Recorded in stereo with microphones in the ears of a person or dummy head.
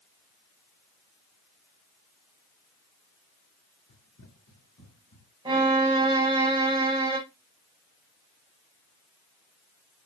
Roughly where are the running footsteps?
Left.